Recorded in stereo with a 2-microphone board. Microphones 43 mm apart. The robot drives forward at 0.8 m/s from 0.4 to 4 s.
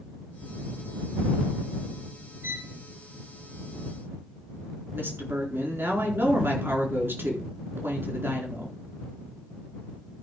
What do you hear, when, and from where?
2.4 s a violin: 60° right (ahead or behind), 1.2 m; by 2.8 s 65° right (ahead or behind), 1.2 m
4.9 s a woman speaking: 65° right (ahead or behind), 4.5 m